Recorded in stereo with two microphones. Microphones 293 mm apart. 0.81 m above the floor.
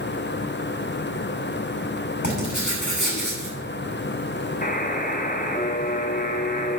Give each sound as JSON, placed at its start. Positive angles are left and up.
{"t": 2.2, "sound": "writing", "side_deg": 80, "distance_m": 5.5}
{"t": 4.6, "sound": "a buzzer", "side_deg": 30, "distance_m": 1.0}